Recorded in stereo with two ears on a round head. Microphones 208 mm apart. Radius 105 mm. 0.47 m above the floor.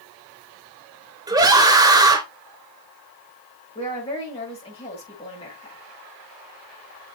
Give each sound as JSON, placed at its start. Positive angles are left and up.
{"t": 1.3, "sound": "a scream", "side_deg": -15, "distance_m": 1.2}
{"t": 3.8, "sound": "a woman speaking", "side_deg": 25, "distance_m": 6.0}